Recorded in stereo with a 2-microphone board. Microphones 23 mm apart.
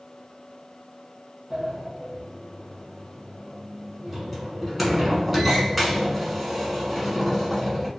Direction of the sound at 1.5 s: Centre (ahead or behind).